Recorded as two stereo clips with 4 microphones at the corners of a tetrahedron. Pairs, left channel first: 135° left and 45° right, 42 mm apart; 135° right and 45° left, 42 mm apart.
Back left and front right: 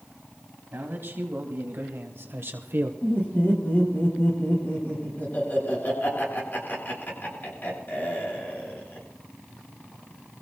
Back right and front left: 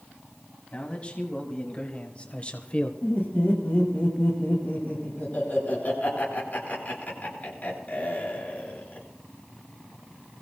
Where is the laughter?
Straight behind, 8.5 m.